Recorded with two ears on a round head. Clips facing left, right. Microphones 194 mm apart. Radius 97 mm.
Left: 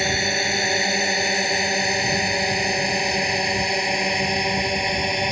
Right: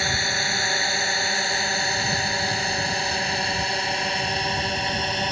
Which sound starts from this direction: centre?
A drone, at 0.0 s.